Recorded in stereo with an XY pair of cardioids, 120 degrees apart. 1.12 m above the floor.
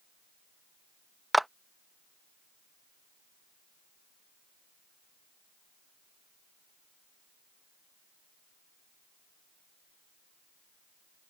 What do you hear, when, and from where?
1.3 s a clap: 5° right